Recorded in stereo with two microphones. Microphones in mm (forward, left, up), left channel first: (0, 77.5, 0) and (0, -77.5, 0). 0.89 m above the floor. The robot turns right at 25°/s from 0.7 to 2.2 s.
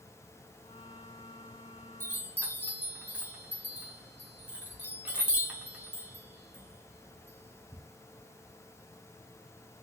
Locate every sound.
2.0 s a chime: 15° right (ahead or behind), 1.0 m; by 7.8 s 10° right (ahead or behind), 1.0 m